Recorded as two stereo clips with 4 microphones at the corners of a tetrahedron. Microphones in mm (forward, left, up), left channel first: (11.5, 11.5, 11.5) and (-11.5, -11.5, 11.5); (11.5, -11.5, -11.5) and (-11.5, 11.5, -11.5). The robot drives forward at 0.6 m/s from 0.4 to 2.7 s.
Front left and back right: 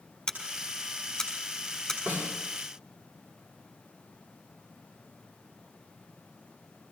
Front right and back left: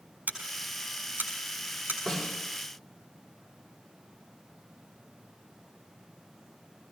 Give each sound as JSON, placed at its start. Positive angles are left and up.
{"t": 0.3, "sound": "scissors", "azimuth_deg": 115, "distance_m": 5.0}
{"t": 2.1, "sound": "a snare drum", "azimuth_deg": -145, "distance_m": 5.5}